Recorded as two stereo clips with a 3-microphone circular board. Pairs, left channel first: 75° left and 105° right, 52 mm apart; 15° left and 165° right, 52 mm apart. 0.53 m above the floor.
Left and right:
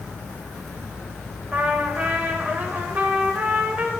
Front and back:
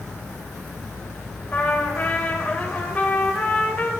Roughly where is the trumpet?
Ahead right.